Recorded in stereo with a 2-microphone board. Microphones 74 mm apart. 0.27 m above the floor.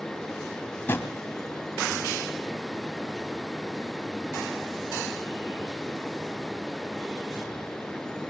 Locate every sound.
0.9 s a drawer: 30° left (ahead or behind), 1.2 m